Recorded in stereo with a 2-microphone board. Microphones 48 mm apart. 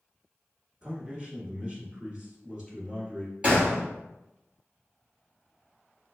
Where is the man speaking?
25° right (ahead or behind), 1.1 m.